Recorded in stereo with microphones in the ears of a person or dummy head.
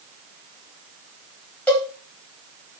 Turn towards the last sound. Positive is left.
turn(degrees=10)  # may be behind; listen again after turning